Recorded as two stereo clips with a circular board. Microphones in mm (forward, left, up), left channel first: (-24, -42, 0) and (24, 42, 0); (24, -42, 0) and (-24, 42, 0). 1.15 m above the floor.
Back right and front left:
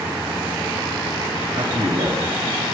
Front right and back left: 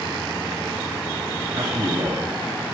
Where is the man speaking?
85° left, 2.5 m.